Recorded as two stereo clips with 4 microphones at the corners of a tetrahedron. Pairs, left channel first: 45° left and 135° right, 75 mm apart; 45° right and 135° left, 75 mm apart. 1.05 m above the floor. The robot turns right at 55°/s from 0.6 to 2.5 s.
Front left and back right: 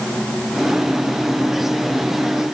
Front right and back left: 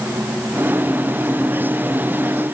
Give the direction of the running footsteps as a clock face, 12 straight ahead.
No running footsteps in this recording.